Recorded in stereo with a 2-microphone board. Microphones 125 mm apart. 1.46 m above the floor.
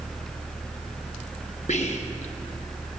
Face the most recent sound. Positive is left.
turn(degrees=70)  # may be behind; listen again after turning